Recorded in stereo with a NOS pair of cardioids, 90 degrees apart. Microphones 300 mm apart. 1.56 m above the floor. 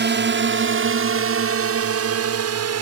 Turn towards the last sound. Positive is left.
turn(degrees=-60)